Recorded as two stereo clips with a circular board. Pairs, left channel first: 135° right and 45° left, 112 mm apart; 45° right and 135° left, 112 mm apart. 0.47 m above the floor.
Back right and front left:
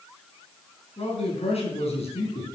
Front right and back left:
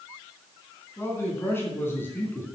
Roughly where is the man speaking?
Behind right.